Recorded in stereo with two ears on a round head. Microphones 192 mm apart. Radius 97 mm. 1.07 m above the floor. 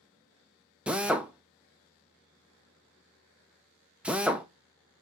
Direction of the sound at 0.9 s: 5° right (ahead or behind).